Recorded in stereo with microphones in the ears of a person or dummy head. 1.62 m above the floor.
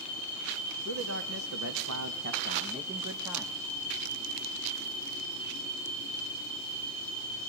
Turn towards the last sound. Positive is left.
turn(degrees=-5)  # may be behind; listen again after turning